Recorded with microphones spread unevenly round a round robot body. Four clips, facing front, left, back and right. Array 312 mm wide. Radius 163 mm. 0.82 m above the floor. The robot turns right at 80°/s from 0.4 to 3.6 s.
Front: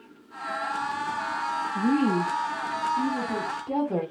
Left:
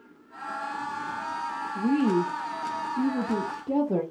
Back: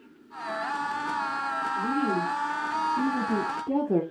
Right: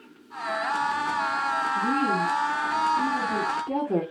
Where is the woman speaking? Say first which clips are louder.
Left 5 dB, front 5 dB; 25° left, 0.8 m; by 4.0 s 175° left, 0.8 m.